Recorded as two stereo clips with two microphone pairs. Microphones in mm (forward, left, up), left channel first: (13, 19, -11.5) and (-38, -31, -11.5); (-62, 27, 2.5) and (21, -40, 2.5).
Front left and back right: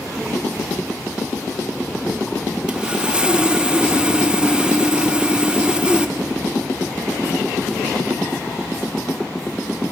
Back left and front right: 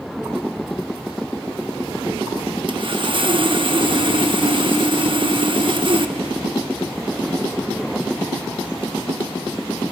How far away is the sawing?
About 1.0 m.